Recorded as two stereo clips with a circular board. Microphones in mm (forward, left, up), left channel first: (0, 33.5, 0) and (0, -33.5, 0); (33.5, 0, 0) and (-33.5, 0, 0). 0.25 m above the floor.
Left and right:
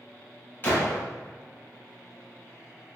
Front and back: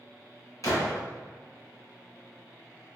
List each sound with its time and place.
0.6 s a gunshot: 35° left, 1.4 m